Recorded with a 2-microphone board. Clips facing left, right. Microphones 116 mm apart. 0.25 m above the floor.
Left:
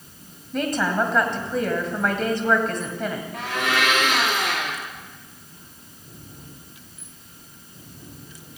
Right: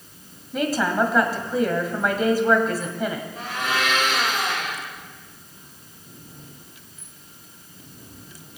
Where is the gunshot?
I don't hear a gunshot.